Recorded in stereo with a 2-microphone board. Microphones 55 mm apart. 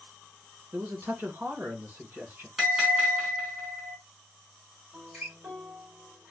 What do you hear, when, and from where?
0.7 s a man speaking: 40° right (ahead or behind), 1.9 m
2.6 s a bell: 10° right (ahead or behind), 3.5 m
4.9 s a guitar: 20° right (ahead or behind), 3 m